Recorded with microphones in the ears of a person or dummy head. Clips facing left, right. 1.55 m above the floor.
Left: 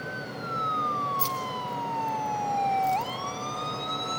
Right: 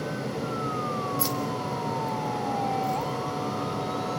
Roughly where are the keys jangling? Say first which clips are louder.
Right 5 dB; centre.